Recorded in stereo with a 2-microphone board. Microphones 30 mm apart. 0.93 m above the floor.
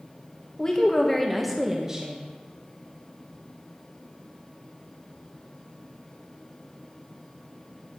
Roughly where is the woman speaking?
Left.